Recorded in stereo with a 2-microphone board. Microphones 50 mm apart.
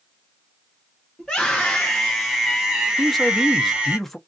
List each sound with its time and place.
1.2 s a scream: 10° left (ahead or behind), 1.2 m; by 4.0 s 20° right (ahead or behind), 1.4 m
3.0 s a man speaking: 5° left (ahead or behind), 0.7 m